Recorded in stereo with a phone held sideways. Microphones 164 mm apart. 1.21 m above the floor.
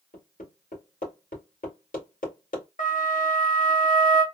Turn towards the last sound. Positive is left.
turn(degrees=50)  # may be behind; listen again after turning